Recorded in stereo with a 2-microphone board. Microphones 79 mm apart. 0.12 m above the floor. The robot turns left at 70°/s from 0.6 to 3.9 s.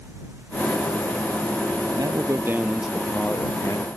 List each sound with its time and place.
2.0 s a man speaking: 110° right; by 3.9 s 115° left